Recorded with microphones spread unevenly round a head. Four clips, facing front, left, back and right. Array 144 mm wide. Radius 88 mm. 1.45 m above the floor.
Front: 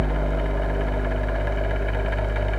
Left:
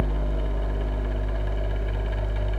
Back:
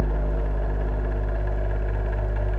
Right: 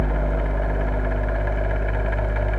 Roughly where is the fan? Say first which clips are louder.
Right 5 dB, front 4 dB; ahead right.